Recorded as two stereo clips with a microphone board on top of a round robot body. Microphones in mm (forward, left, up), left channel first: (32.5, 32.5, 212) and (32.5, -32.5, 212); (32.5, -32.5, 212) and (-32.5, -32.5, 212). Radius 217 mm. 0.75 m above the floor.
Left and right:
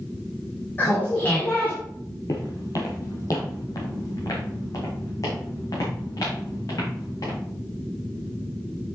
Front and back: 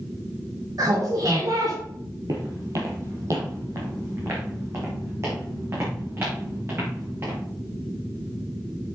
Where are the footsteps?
135° left, 1.2 m; by 7.4 s 130° left, 6 m.